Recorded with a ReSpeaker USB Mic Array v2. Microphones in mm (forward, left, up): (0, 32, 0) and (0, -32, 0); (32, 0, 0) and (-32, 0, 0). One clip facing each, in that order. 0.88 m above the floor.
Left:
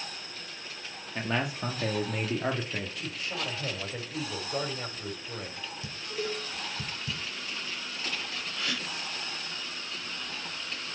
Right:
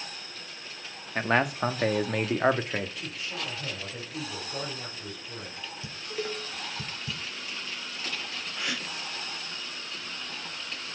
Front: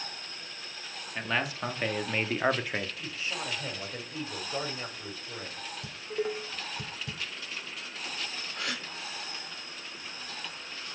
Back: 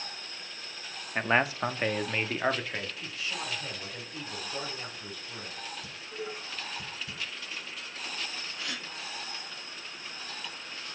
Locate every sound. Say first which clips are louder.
1.1 s a man speaking: right 6 dB, back 5 dB; 130° right, 1.2 m; by 2.9 s 70° right, 1.5 m
3.0 s a man speaking: left 1 dB, front 1 dB; 60° left, 4.5 m
5.8 s dishes clattering: even, front 10 dB; 25° right, 2.5 m
8.6 s a gasp: right 1 dB, front 5 dB; 20° right, 3 m